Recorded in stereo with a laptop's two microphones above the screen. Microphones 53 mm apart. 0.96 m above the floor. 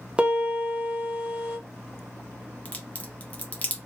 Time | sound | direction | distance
0.2 | a piano | 20° right (ahead or behind) | 0.9 m
2.6 | a crack | 30° left (ahead or behind) | 0.7 m